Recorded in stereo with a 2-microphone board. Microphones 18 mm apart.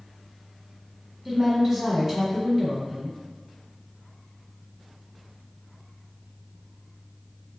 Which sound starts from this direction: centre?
A woman speaking, at 1.2 s.